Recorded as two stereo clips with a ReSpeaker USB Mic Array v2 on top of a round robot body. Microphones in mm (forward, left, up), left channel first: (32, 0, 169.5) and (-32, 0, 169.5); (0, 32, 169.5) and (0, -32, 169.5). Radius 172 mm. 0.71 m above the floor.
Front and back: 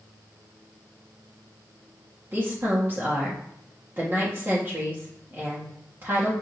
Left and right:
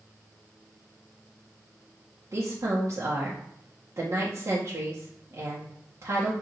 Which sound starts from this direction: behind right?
A woman speaking, at 2.3 s.